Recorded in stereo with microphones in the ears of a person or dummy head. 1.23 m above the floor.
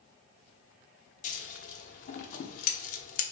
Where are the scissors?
45° left (ahead or behind), 0.7 m.